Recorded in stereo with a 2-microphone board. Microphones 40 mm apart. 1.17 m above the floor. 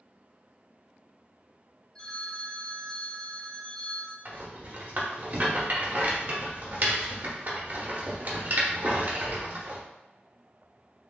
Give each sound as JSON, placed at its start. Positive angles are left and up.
{"t": 1.9, "sound": "a phone ringing", "side_deg": 20, "distance_m": 0.8}
{"t": 4.2, "sound": "a rattle", "side_deg": -50, "distance_m": 1.0}